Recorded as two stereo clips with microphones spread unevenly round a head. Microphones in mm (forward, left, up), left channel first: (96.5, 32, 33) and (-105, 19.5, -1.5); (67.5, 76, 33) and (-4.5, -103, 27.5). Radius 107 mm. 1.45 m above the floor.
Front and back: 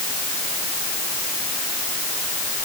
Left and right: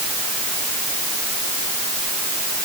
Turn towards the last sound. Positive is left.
No sound to turn to.